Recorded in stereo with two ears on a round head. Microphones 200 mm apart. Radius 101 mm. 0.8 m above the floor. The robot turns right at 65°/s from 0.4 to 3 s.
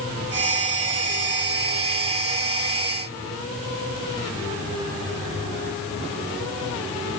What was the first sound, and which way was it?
Only background noise.